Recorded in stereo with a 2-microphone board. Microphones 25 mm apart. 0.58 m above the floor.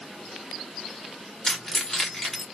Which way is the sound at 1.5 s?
25° left (ahead or behind).